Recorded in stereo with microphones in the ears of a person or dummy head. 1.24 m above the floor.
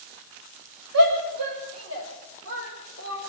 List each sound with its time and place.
0.9 s a shout: 75° right (ahead or behind), 7.5 m; by 3.2 s 80° right, 6.5 m